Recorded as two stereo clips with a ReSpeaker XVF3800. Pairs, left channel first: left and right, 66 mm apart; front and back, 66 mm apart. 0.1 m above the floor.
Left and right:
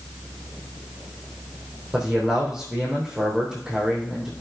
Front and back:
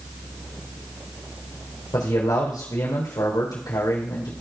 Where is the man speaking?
10° right, 3.5 m.